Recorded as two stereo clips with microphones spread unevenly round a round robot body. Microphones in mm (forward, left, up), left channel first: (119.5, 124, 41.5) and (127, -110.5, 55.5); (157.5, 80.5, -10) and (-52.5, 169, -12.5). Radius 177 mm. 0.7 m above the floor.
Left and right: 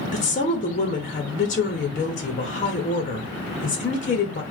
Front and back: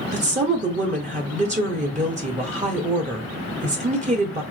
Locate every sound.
0.1 s a woman speaking: 120° left, 0.7 m